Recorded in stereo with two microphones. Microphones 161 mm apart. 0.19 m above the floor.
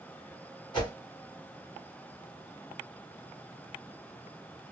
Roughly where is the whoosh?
Left.